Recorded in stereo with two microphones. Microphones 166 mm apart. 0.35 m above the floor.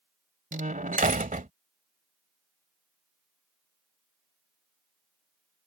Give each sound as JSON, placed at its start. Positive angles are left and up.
{"t": 0.5, "sound": "a door slam", "side_deg": -55}